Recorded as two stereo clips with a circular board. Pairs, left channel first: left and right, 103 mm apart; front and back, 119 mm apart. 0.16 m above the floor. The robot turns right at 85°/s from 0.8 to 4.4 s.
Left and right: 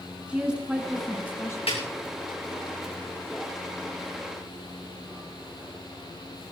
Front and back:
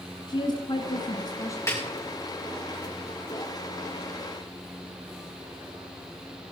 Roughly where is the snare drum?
Ahead left.